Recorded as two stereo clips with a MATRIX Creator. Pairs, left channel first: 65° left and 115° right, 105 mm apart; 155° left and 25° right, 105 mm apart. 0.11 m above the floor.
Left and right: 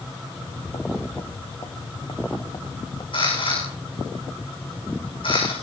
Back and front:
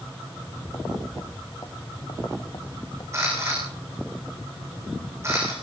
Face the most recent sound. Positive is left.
turn(degrees=40)